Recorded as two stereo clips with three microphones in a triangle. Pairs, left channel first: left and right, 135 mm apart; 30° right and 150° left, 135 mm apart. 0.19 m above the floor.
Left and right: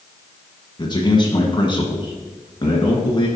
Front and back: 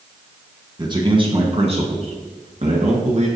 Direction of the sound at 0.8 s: 120° left.